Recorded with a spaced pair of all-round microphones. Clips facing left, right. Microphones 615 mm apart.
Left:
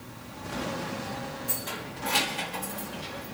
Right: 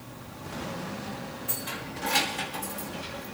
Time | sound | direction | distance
1.5 | keys jangling | 65° left (ahead or behind) | 3.5 m